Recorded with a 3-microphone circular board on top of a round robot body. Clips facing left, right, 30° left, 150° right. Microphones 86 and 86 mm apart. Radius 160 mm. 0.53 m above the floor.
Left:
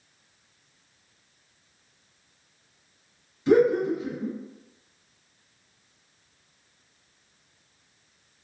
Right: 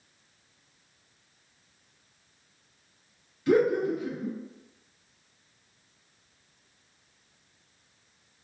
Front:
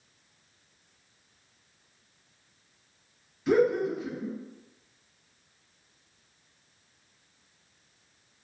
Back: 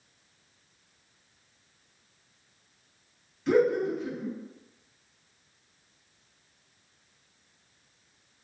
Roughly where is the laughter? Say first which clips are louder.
Left 3 dB, even; behind left.